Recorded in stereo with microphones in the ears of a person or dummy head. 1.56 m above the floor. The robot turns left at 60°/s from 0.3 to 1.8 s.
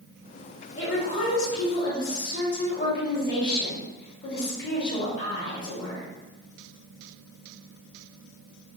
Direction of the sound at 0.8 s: 120° left.